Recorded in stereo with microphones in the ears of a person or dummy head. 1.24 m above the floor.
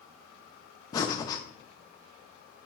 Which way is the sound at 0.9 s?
15° left (ahead or behind).